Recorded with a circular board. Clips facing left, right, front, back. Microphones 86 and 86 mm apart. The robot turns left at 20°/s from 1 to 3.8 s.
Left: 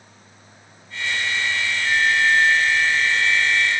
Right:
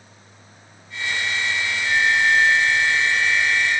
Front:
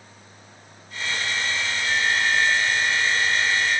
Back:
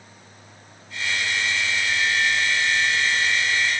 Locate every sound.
1.9 s a flute: 15° left, 3.5 m; by 3.8 s 25° right, 3.5 m